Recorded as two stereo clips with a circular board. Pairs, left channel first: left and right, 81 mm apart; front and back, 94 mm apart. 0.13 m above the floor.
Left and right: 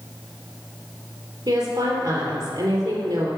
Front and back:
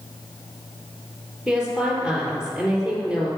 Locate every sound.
1.5 s a woman speaking: 100° right, 3.5 m